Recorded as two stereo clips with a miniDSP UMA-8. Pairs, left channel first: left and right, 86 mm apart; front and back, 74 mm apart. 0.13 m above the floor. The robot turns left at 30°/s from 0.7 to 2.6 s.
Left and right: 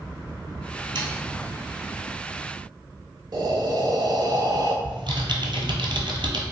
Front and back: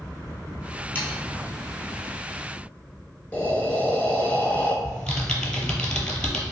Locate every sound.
0.9 s sawing: 65° right, 1.0 m; by 1.2 s 70° right, 1.0 m
3.3 s breathing: 70° right, 0.5 m
4.8 s typing on a keyboard: 80° right, 0.8 m